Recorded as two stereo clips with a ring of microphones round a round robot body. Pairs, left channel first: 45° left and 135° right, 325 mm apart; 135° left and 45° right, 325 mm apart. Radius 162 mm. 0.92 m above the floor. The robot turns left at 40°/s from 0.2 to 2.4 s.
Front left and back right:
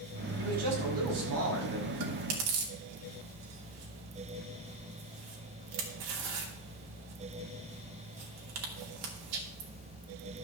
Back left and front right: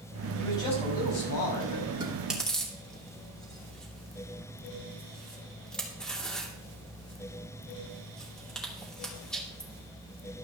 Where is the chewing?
120° right, 2.5 m; by 9.7 s 135° right, 2.5 m.